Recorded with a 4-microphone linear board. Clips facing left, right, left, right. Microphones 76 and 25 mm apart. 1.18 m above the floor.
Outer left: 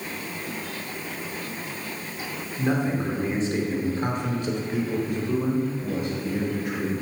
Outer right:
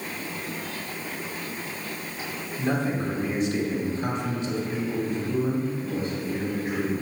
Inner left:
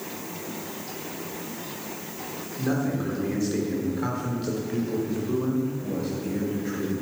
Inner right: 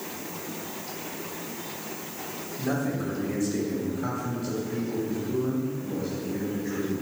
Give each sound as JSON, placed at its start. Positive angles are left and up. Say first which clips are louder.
{"t": 2.6, "sound": "a man speaking", "louder": "outer left 2 dB, inner left 2 dB", "side_deg": 10, "distance_m": 3.0}